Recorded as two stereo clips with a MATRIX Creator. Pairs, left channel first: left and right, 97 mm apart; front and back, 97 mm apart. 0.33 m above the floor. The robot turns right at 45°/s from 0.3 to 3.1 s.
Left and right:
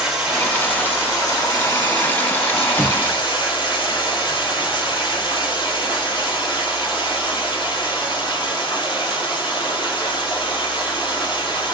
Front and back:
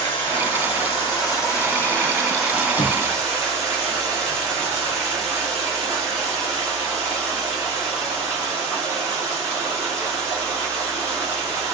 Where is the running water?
5° right, 2 m; by 11.7 s 120° left, 2 m.